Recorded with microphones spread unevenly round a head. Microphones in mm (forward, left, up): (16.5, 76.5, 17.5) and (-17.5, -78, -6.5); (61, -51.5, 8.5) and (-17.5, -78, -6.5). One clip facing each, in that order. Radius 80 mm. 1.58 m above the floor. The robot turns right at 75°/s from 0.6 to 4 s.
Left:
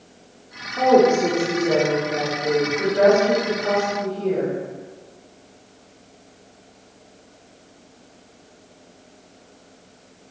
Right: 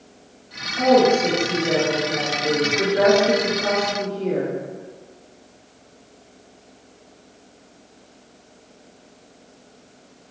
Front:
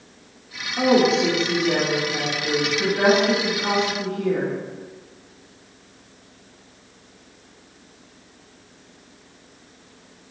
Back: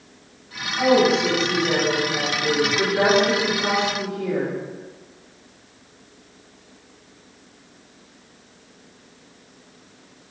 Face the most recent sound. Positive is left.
turn(degrees=-85)